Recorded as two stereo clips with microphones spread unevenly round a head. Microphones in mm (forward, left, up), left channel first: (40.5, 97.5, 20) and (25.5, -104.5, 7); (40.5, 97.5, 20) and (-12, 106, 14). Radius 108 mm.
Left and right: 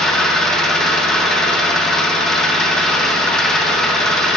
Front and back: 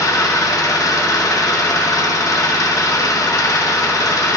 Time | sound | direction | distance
0.0 | an engine running | 5° right | 1.2 m